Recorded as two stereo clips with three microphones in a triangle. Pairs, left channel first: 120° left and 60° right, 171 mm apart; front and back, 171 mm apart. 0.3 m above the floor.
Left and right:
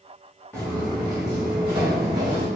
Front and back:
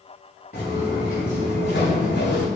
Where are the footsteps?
35° left, 1.9 m; by 2.5 s 5° right, 1.2 m.